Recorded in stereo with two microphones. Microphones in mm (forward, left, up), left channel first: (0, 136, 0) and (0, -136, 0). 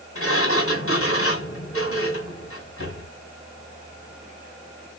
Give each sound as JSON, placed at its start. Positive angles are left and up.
{"t": 0.1, "sound": "a sliding door", "side_deg": 55, "distance_m": 1.4}